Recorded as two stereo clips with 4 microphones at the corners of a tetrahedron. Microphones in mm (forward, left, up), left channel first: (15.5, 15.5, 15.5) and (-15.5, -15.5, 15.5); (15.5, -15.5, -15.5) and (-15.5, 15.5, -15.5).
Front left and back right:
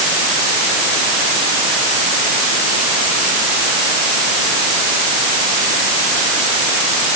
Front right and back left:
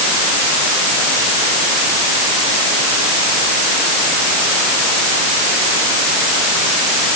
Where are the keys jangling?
No keys jangling in this recording.